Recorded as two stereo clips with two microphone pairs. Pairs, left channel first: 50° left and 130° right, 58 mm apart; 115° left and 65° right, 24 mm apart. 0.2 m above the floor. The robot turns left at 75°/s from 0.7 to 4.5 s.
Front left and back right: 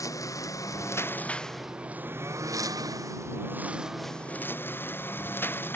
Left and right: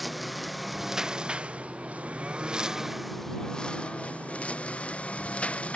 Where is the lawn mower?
25° left; by 5.8 s 100° left.